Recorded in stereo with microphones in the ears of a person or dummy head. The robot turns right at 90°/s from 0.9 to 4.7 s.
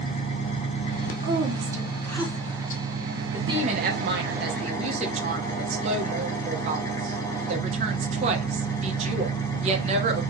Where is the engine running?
35° left, 1.1 m; by 10.3 s 20° left, 1.1 m.